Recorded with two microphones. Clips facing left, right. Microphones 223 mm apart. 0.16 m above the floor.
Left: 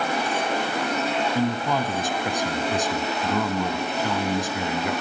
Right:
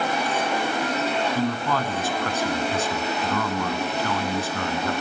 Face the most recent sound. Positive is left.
turn(degrees=15)  # may be behind; listen again after turning